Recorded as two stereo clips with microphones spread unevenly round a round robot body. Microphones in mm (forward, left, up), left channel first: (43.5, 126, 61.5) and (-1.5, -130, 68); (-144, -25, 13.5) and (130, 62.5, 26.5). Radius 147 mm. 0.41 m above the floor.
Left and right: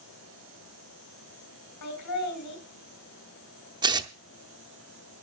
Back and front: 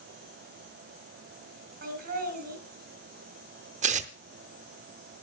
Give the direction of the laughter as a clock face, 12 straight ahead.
9 o'clock.